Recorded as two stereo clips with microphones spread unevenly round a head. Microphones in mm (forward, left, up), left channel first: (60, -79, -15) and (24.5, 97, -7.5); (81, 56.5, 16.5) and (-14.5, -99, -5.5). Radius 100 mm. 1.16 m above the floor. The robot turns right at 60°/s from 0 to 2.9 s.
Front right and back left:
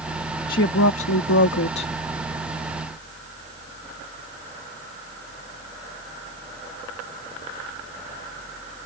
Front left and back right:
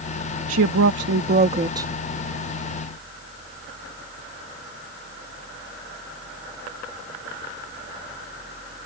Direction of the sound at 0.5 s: 130° right.